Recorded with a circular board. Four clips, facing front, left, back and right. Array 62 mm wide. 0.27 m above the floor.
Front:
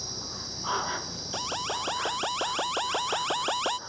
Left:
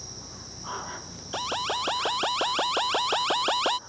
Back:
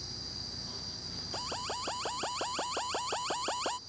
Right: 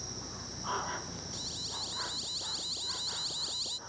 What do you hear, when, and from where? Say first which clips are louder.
0.0 s an insect: even, front 7 dB; 5° right
1.3 s an alarm: left 16 dB, front 6 dB; 70° left